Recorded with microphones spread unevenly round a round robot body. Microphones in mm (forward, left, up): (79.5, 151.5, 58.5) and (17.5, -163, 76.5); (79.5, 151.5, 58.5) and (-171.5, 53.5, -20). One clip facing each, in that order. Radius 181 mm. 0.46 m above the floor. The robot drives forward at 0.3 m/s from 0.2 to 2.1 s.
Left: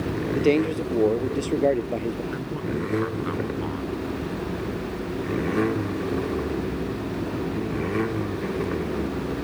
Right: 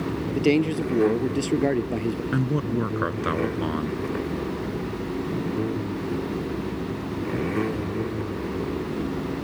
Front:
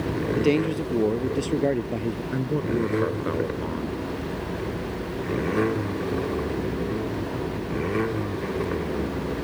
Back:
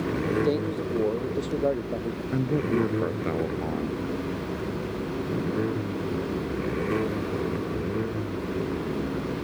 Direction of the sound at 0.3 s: 40° right.